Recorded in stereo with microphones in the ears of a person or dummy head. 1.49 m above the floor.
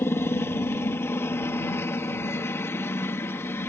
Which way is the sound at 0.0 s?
20° left (ahead or behind).